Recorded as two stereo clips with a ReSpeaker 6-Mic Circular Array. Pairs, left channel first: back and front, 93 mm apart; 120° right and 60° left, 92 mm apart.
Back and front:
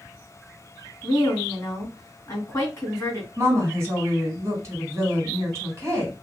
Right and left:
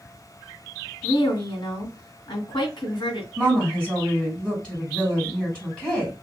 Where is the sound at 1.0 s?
130° right, 2 m.